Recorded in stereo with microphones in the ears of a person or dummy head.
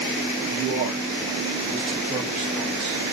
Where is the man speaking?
45° right (ahead or behind), 0.8 m; by 3.0 s 25° right (ahead or behind), 1.2 m.